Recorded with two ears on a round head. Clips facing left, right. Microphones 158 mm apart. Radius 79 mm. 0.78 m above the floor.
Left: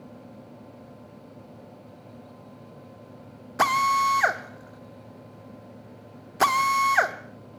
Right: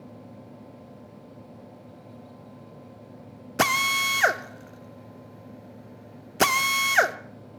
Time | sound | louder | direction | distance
3.6 | a drill | left 3 dB | 30° right (ahead or behind) | 0.8 m